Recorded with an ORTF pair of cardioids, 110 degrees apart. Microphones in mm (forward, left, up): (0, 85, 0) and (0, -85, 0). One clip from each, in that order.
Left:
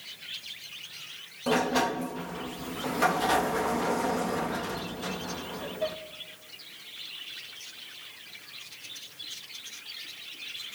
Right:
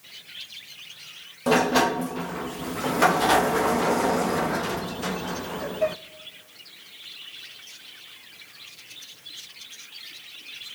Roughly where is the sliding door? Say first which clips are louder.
Right 6 dB; ahead right.